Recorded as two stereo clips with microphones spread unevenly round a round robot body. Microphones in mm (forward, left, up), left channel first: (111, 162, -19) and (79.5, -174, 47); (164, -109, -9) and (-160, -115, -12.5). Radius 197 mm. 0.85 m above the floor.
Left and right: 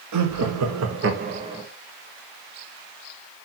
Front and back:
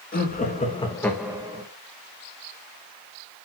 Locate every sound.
0.1 s laughter: 55° right, 1.6 m; by 1.6 s 160° left, 0.9 m